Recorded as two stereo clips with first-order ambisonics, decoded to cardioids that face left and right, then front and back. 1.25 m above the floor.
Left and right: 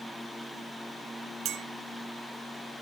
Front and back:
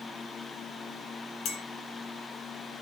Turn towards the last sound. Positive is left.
turn(degrees=-45)